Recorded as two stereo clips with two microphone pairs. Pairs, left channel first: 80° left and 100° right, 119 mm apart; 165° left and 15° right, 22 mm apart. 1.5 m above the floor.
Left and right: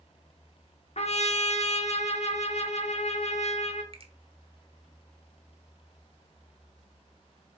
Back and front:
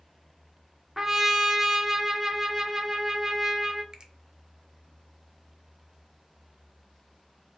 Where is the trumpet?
65° left, 0.6 m.